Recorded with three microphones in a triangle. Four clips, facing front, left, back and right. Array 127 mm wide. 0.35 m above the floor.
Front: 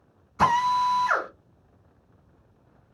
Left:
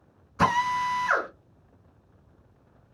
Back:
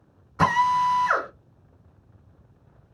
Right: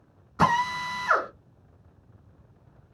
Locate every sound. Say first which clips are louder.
0.4 s a drill: even, back 1 dB; 150° right, 2.0 m